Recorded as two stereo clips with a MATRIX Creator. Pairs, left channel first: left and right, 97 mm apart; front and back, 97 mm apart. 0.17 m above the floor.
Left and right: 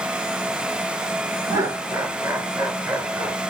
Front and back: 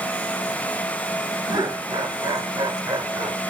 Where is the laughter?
140° right, 3 m.